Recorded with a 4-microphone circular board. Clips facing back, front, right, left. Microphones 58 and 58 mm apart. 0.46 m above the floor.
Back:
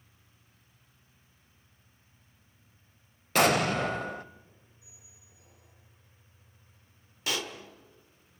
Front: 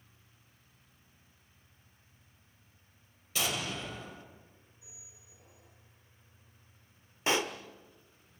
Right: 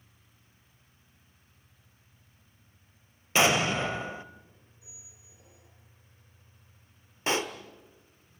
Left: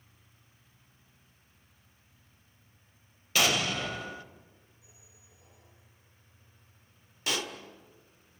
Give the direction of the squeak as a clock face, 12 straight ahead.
2 o'clock.